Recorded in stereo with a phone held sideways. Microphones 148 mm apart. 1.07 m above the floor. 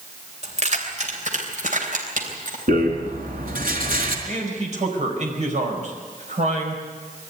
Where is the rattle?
75° right (ahead or behind), 4 m.